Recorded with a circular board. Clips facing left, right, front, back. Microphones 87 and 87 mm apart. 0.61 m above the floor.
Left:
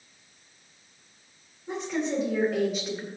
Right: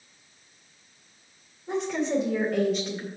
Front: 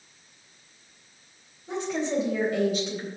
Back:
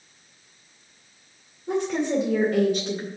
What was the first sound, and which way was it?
A woman speaking, straight behind.